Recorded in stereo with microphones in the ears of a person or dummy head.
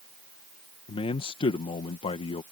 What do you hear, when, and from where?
0.9 s a man speaking: 30° left (ahead or behind)